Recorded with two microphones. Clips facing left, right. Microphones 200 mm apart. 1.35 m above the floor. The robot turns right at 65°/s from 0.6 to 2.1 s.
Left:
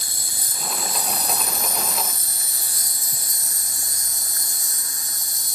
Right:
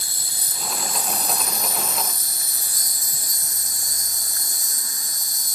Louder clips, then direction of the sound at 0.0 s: Left 1 dB; 55° left.